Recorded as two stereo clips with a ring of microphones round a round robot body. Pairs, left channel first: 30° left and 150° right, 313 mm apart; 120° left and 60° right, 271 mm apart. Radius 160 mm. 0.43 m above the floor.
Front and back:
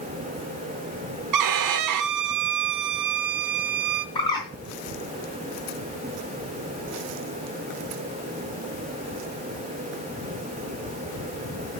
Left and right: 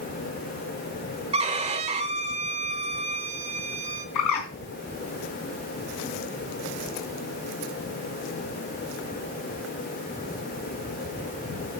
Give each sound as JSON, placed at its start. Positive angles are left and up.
{"t": 1.3, "sound": "a violin", "azimuth_deg": -130, "distance_m": 0.8}
{"t": 4.2, "sound": "a bird", "azimuth_deg": 105, "distance_m": 4.5}